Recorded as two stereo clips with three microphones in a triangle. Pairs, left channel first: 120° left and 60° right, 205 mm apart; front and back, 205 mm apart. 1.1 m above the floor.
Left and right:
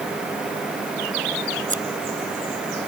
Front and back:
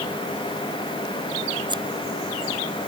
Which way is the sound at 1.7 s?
110° right.